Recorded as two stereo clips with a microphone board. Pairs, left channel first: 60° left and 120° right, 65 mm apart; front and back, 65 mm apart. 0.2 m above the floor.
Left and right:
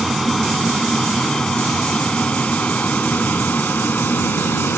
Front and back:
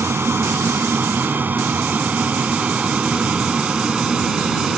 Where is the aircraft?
150° left; by 4.8 s 100° left.